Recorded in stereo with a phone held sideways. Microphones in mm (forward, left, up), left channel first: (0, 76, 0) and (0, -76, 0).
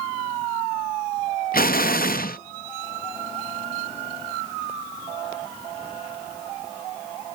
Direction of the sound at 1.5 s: 85° left.